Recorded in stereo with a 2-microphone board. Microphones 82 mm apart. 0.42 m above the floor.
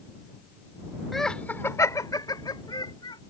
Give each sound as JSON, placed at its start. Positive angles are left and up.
{"t": 1.1, "sound": "laughter", "side_deg": 0}